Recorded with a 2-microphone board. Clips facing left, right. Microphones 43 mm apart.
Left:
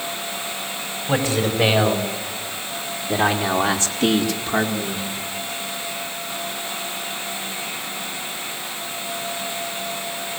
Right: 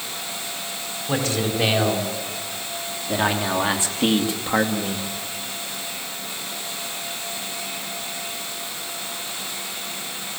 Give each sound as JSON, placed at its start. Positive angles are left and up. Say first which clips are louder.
{"t": 1.1, "sound": "a man speaking", "louder": "left 3 dB", "side_deg": 5, "distance_m": 5.0}